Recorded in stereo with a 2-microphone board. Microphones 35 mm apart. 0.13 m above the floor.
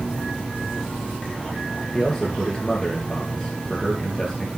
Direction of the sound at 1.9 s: 15° left (ahead or behind).